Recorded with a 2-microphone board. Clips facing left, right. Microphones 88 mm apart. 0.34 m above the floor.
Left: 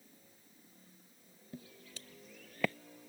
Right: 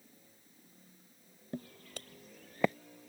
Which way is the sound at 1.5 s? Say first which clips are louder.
Right 7 dB; 65° right (ahead or behind).